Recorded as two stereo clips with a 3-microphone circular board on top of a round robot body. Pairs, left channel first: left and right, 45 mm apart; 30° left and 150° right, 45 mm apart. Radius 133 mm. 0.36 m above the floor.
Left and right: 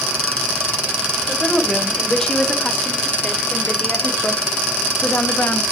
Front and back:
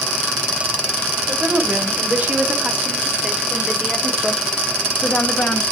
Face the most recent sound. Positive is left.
turn(degrees=75)